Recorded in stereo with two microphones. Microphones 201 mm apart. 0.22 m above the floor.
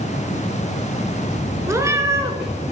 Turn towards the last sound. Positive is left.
turn(degrees=-15)  # may be behind; listen again after turning